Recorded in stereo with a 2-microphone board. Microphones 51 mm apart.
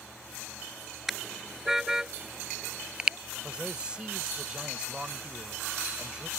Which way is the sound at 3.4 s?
20° right (ahead or behind).